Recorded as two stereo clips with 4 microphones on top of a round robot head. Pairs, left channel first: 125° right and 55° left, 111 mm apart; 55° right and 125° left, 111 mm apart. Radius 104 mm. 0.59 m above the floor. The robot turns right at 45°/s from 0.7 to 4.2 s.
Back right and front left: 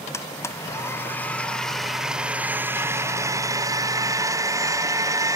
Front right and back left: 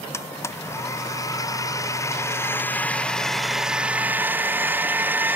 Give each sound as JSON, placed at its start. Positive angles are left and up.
{"t": 0.1, "sound": "a blender", "azimuth_deg": -90}